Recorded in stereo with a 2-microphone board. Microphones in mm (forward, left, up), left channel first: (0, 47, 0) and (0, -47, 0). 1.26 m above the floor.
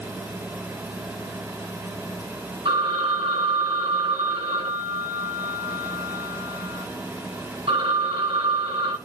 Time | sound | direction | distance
2.6 | a phone ringing | 85° right | 7.5 m